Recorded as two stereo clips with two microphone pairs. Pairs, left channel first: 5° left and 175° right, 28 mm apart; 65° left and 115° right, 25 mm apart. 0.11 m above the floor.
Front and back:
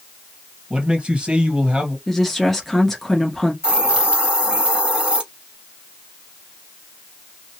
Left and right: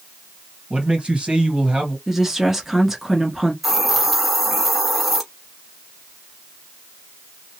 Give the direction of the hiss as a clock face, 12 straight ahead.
7 o'clock.